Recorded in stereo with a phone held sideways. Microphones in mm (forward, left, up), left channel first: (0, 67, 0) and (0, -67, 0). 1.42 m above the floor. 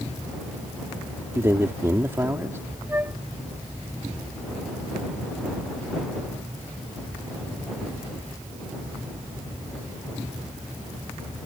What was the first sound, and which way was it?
A man speaking, 20° right (ahead or behind).